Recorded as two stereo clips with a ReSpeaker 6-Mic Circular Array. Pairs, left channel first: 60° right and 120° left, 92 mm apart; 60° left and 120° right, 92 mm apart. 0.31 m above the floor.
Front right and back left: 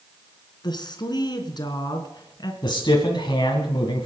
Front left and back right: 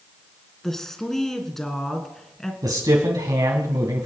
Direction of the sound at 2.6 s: 80° right.